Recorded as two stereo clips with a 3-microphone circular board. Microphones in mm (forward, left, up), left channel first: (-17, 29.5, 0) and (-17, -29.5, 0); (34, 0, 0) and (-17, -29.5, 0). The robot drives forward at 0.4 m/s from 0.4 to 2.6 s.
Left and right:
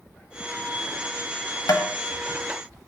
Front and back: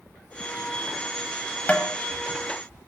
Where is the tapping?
100° left, 0.7 m; by 1.9 s 105° left, 0.7 m.